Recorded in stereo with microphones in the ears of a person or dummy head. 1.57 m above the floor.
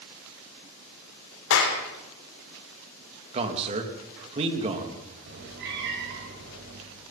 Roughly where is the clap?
Left.